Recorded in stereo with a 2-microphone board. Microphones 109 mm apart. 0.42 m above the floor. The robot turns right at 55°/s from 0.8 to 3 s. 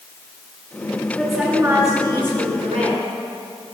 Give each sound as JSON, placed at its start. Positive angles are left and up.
{"t": 1.2, "sound": "a woman speaking", "azimuth_deg": 175, "distance_m": 4.5}